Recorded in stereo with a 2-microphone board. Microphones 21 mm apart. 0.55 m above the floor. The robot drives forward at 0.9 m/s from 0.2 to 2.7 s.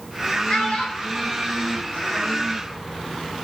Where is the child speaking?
65° left (ahead or behind), 1.9 m; by 2.4 s 50° left (ahead or behind), 2 m.